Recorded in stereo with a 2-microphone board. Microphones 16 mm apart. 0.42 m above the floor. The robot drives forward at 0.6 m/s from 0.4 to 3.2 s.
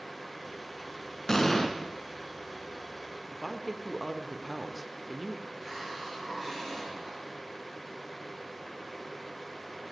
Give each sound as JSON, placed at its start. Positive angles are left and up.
{"t": 1.3, "sound": "an explosion", "side_deg": 35, "distance_m": 1.4}
{"t": 3.3, "sound": "a woman speaking", "side_deg": -5, "distance_m": 0.7}
{"t": 5.5, "sound": "a hiss", "side_deg": 10, "distance_m": 7.5}